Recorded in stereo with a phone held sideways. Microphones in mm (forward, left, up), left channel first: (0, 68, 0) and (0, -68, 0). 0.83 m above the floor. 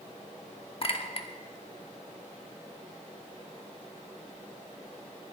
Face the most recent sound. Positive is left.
turn(degrees=45)  # may be behind; listen again after turning